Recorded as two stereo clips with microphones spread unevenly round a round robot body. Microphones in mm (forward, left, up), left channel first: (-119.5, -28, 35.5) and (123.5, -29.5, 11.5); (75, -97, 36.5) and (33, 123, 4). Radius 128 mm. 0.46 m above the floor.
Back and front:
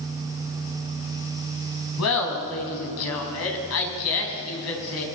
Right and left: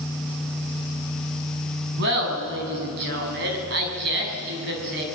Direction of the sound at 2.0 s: 150° left.